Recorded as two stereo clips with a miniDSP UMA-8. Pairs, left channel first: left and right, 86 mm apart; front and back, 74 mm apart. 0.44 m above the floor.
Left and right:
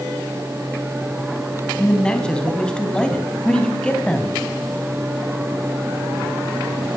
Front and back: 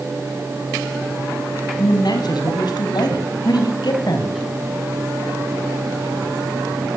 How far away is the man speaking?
About 4 m.